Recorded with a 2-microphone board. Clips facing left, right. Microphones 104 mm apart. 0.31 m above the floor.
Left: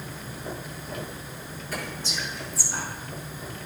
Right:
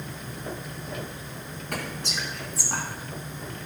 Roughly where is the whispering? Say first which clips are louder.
Right 1 dB; right.